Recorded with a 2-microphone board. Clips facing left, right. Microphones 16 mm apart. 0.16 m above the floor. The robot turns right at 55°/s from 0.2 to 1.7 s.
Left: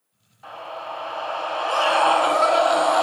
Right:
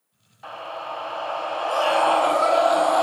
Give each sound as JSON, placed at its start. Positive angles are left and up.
{"t": 0.4, "sound": "a scream", "azimuth_deg": -35, "distance_m": 1.4}